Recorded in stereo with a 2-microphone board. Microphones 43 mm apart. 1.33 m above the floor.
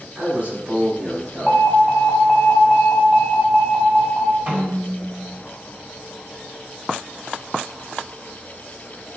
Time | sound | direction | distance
0.1 | a man speaking | 45° right (ahead or behind) | 1.5 m
1.5 | an alarm | 5° left (ahead or behind) | 0.7 m
4.5 | a snare drum | 35° right (ahead or behind) | 1.5 m